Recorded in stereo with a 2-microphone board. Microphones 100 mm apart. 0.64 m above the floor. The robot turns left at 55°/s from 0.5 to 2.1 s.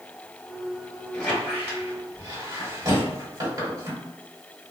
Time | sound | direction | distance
1.1 | a squeak | 10° left (ahead or behind) | 1.4 m